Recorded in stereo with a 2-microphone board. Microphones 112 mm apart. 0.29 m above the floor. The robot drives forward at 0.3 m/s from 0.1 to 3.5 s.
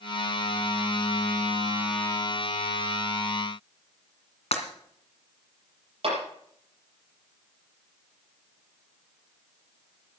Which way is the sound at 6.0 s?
60° right (ahead or behind).